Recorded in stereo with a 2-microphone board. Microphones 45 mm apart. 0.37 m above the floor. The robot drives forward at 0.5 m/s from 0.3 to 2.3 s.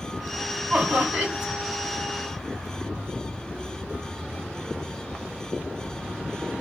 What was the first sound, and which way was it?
Laughter, 30° right (ahead or behind).